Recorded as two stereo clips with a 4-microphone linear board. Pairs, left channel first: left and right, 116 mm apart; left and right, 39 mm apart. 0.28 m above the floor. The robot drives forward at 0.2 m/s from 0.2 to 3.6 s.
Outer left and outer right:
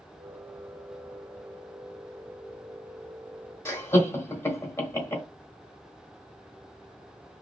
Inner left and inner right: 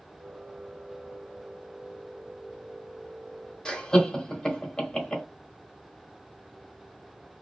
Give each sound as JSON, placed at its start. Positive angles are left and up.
{"t": 3.6, "sound": "laughter", "side_deg": 20, "distance_m": 1.1}